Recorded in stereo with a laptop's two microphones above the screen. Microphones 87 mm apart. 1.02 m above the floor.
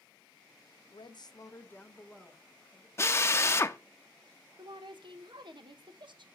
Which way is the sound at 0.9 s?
65° left (ahead or behind).